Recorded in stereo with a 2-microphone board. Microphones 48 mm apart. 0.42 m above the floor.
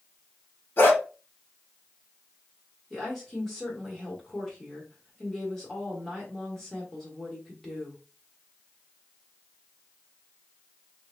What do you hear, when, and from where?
0.8 s a dog barking: 45° left (ahead or behind), 1.2 m
2.9 s a woman speaking: 5° left (ahead or behind), 1.2 m